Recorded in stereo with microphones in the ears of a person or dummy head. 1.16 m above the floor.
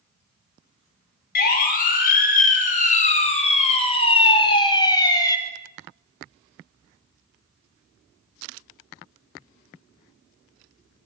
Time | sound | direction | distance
1.4 | a siren | 45° left (ahead or behind) | 6.5 m